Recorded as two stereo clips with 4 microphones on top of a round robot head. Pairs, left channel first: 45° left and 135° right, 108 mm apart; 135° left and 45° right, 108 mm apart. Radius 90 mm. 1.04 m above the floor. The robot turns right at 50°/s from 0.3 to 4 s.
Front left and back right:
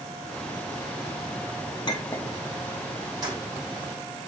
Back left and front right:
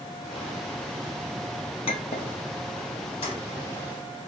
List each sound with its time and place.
1.9 s a clink: 95° left, 1.1 m; by 2.3 s 120° left, 1.1 m
3.2 s keys jangling: 170° left, 3 m; by 3.4 s 175° left, 3 m